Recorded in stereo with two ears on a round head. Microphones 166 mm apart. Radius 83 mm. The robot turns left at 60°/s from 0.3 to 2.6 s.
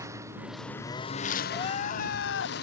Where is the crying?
155° left; by 2.5 s 95° left.